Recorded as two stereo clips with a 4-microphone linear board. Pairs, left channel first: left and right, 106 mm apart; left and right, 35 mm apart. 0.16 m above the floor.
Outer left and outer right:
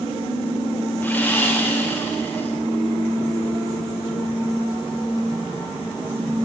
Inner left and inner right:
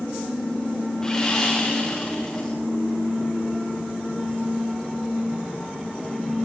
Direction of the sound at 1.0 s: 15° left (ahead or behind).